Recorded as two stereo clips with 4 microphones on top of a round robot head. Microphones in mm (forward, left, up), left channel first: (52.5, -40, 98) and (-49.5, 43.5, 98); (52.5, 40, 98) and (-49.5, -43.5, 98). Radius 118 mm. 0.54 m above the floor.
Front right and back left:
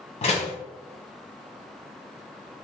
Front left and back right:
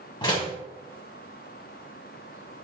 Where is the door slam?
10° right, 1.3 m.